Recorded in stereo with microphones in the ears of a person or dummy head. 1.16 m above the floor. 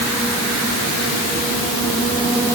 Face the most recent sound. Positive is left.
No sound to turn to.